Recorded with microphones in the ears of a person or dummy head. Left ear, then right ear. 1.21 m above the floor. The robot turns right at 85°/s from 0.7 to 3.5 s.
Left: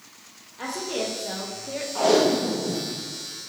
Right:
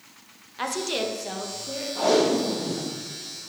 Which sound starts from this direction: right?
A woman speaking, at 0.6 s.